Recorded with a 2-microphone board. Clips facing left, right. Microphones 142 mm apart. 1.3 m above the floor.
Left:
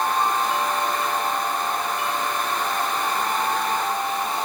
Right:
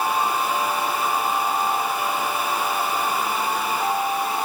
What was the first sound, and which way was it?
Only background noise.